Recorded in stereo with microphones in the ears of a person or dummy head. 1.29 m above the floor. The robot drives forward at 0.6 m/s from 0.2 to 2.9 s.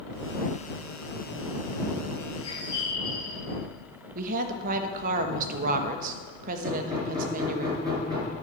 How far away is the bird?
About 1.8 m.